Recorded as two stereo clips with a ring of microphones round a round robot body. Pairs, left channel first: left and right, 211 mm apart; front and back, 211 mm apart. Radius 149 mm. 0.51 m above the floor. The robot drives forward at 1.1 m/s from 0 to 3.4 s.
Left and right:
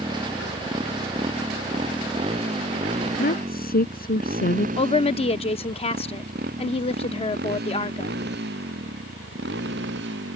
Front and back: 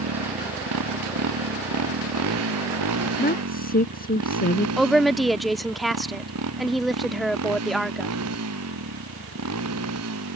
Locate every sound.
0.0 s a motorcycle: 170° right; by 10.4 s 145° right
3.2 s a woman speaking: 45° left
4.8 s a woman speaking: 90° left